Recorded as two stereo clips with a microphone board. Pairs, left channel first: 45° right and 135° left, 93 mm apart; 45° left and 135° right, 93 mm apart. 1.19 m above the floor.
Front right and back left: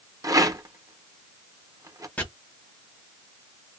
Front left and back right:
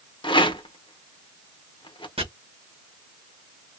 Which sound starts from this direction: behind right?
Chopping, at 2.2 s.